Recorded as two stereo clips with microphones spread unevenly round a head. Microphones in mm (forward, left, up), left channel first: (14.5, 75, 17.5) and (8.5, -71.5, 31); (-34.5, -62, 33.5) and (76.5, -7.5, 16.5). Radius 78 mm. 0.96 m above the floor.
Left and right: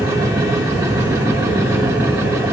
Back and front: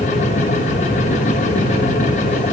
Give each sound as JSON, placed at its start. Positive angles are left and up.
{"t": 0.0, "sound": "a machine running", "azimuth_deg": -160, "distance_m": 0.8}